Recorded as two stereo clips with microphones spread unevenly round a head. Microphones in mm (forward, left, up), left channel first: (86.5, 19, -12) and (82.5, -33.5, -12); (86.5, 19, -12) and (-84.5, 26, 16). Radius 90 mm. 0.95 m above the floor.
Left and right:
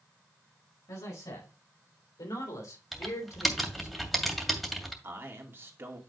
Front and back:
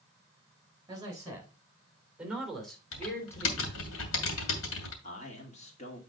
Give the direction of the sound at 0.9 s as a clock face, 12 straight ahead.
8 o'clock.